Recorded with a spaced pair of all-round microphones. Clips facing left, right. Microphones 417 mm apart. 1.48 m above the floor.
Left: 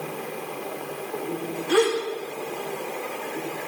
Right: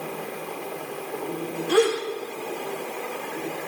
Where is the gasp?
20° left (ahead or behind), 6.5 m.